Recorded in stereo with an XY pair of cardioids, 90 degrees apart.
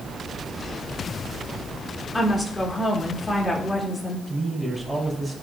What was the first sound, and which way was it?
A woman speaking, 25° left.